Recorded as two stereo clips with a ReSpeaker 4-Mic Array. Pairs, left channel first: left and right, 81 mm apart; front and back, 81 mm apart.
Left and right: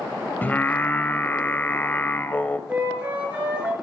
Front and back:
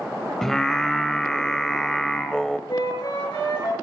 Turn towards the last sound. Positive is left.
turn(degrees=-20)